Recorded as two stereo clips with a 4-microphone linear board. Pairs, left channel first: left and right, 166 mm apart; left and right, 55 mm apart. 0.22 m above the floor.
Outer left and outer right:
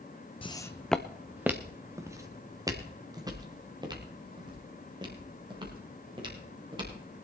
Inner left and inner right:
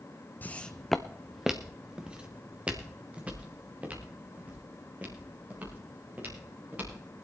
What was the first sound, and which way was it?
Footsteps, 35° left (ahead or behind).